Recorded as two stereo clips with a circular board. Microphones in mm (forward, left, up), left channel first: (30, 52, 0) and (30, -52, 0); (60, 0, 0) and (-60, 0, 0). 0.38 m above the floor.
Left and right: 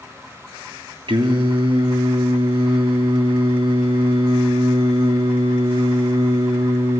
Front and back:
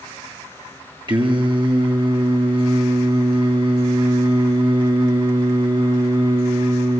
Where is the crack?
I don't hear a crack.